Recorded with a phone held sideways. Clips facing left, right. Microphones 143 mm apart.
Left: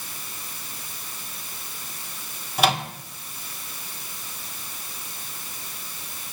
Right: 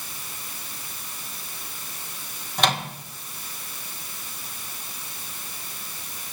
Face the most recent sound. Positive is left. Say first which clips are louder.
# left 2 dB
turn(degrees=5)  # may be behind; listen again after turning